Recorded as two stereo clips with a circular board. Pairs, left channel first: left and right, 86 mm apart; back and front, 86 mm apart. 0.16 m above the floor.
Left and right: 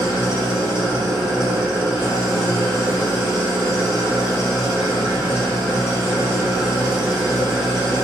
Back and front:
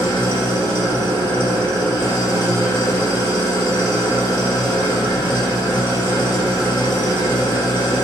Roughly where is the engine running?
Ahead.